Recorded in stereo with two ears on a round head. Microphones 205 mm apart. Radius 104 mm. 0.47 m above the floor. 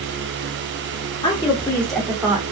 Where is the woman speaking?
20° left (ahead or behind), 0.9 m; by 2.4 s 10° right (ahead or behind), 1.0 m.